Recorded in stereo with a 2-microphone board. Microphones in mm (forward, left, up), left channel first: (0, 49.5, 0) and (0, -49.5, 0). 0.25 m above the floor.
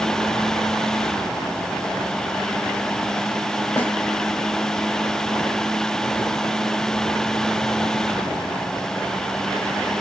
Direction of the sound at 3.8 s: 20° left (ahead or behind).